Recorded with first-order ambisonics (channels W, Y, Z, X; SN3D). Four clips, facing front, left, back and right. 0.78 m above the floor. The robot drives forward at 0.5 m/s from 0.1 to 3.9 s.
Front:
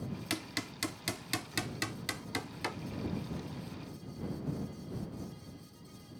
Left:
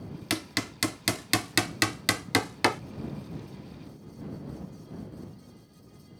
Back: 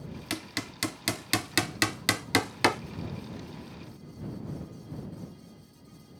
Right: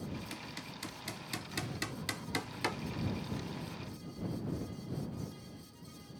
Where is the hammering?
95° left; by 2.8 s 140° left.